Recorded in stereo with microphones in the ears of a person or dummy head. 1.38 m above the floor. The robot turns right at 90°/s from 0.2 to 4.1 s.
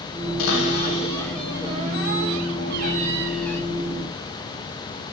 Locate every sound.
0.4 s a cupboard door: 90° left, 1.6 m; by 3.6 s 20° left, 1.6 m